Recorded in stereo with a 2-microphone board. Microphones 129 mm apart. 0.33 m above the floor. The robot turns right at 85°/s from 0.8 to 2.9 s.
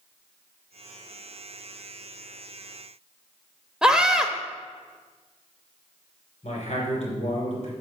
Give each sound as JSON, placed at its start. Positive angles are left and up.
{"t": 3.8, "sound": "a scream", "side_deg": -5, "distance_m": 0.8}
{"t": 6.4, "sound": "a man speaking", "side_deg": 55, "distance_m": 4.0}